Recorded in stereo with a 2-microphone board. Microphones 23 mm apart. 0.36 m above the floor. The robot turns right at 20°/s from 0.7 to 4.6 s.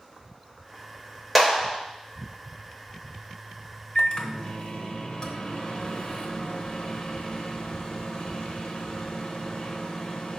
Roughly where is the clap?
Centre.